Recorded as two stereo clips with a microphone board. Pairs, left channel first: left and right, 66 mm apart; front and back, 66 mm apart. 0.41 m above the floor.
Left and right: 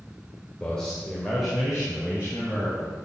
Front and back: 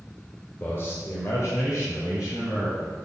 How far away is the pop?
I don't hear a pop.